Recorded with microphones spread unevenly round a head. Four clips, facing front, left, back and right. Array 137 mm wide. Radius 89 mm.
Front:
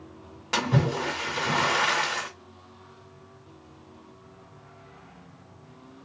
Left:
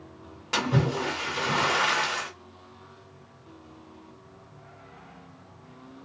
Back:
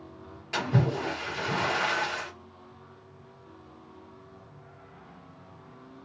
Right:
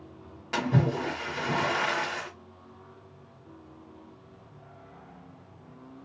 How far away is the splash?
About 2.0 m.